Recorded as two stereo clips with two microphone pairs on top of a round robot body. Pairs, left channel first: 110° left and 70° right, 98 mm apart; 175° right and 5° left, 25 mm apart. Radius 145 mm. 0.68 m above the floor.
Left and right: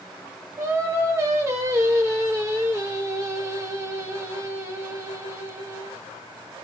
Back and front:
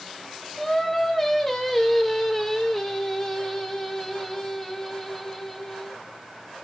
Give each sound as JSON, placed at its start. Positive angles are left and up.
{"t": 0.6, "sound": "singing", "azimuth_deg": -100, "distance_m": 1.2}